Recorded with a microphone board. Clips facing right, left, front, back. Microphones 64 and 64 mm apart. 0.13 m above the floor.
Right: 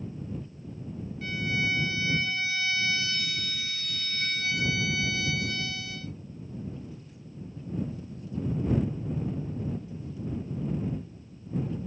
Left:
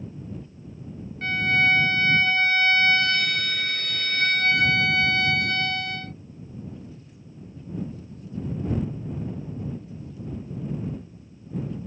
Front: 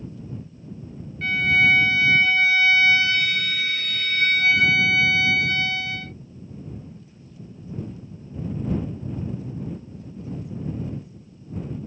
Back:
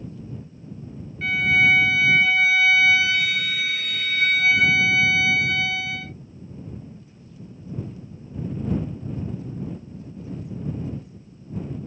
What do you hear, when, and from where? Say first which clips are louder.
1.2 s a violin: left 9 dB, even; 95° left